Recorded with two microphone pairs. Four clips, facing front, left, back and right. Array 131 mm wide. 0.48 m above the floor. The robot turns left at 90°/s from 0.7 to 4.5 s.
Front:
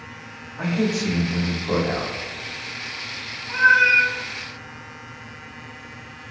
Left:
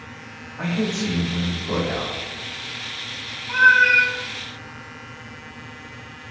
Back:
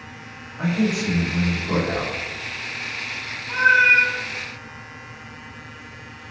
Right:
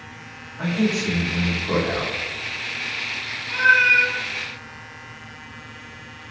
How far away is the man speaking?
About 1.1 m.